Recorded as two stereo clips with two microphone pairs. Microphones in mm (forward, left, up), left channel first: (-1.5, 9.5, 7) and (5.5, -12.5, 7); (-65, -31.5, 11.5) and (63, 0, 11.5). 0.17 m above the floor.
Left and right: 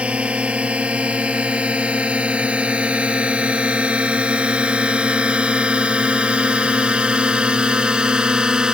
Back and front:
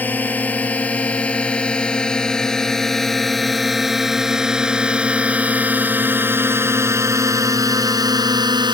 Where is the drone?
90° right; by 8.7 s 30° right.